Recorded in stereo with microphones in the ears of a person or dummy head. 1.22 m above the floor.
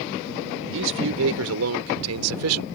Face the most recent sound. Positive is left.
turn(degrees=-75)  # may be behind; listen again after turning